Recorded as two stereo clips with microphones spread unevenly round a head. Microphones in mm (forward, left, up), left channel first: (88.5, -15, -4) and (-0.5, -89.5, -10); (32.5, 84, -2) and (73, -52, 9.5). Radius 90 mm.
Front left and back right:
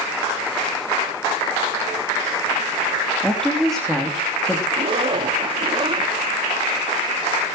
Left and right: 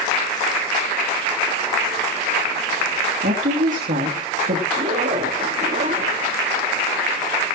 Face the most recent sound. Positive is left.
turn(degrees=-105)